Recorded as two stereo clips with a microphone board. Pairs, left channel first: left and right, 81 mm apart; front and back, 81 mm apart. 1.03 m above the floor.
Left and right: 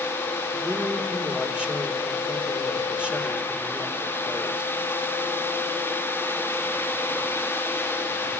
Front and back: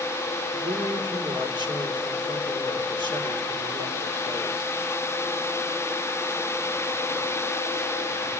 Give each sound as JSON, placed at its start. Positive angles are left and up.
{"t": 0.5, "sound": "a man speaking", "azimuth_deg": -170, "distance_m": 3.0}